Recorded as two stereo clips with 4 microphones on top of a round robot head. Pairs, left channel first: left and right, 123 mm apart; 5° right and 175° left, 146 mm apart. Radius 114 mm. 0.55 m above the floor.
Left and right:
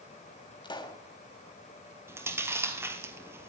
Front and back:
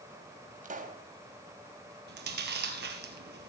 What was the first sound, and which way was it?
A pop, 145° left.